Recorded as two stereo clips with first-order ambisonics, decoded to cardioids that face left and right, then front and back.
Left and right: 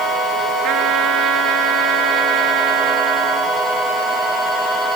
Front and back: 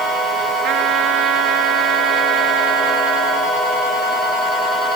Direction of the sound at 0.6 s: 130° right.